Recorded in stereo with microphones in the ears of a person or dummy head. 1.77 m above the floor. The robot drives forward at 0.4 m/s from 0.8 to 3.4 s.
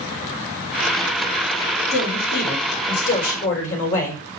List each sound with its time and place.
1.9 s a man speaking: 70° left (ahead or behind), 3.5 m; by 4.2 s 80° left, 3.5 m